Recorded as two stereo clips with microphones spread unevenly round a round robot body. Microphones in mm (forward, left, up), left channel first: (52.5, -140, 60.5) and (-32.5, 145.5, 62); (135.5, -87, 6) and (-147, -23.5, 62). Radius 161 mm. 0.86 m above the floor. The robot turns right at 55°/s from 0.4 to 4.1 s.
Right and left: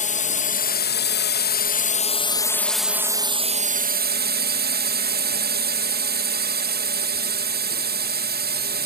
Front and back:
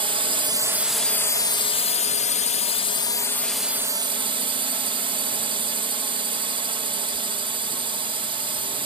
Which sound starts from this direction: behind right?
A drone, at 0.0 s.